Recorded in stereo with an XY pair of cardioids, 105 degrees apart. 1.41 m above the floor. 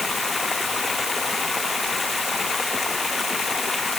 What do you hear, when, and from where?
0.0 s running water: 35° left